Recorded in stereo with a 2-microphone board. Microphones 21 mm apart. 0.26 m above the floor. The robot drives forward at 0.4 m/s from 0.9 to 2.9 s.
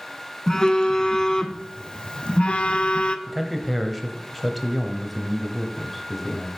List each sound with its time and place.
0.5 s a phone buzzing: 25° left (ahead or behind), 0.9 m; by 3.2 s 60° left (ahead or behind), 0.5 m
3.3 s a man speaking: centre (ahead or behind), 0.9 m